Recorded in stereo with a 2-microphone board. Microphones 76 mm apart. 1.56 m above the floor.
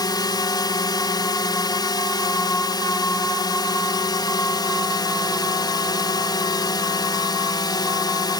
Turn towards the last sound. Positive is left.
turn(degrees=65)  # may be behind; listen again after turning